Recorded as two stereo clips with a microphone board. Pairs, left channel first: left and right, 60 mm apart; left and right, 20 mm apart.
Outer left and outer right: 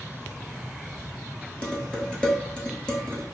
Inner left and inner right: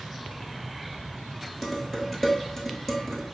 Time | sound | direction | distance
1.6 | dishes clattering | 15° left (ahead or behind) | 1.0 m